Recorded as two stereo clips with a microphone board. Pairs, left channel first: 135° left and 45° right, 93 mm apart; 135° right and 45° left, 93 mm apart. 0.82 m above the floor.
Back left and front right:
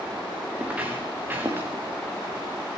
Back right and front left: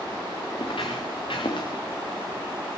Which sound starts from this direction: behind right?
Footsteps, at 0.6 s.